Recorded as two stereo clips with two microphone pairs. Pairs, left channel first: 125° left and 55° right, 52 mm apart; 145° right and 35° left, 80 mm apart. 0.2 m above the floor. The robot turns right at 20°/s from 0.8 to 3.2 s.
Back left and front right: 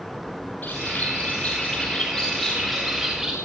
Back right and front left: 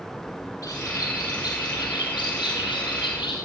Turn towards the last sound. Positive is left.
turn(degrees=-130)